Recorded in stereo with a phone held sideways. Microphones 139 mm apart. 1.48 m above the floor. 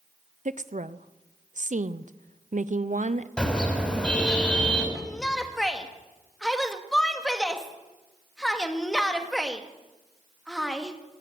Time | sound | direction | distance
0.5 | a woman speaking | 65° right (ahead or behind) | 0.7 m
3.4 | a car horn | 5° left (ahead or behind) | 5 m
5.0 | a shout | 5° left (ahead or behind) | 1.9 m